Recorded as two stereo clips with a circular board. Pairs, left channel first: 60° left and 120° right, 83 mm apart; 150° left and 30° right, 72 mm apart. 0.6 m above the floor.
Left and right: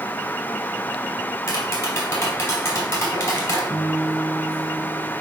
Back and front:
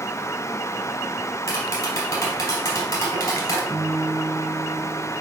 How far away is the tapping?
About 2.5 m.